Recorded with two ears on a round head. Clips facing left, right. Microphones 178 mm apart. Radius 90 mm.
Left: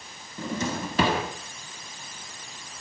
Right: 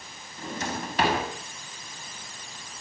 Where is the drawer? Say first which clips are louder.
Left 4 dB; 80° left, 6 m.